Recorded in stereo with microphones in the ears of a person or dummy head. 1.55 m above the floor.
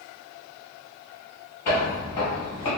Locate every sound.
1.6 s footsteps: 15° left (ahead or behind), 1.6 m; by 2.7 s 25° left (ahead or behind), 1.7 m